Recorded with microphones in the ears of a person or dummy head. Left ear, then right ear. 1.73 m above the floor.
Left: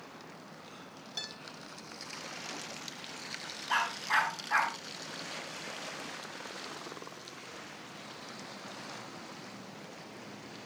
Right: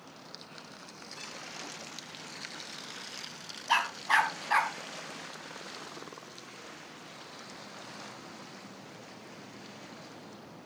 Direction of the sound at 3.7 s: 50° right (ahead or behind).